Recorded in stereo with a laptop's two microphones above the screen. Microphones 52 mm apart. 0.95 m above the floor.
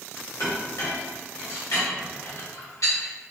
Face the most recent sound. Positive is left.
turn(degrees=80)